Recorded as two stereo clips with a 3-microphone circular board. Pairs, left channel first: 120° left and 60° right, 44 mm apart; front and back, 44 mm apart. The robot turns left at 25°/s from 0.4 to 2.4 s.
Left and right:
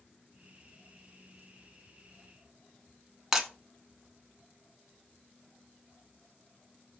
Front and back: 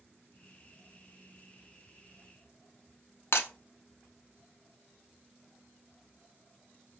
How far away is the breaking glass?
About 0.6 m.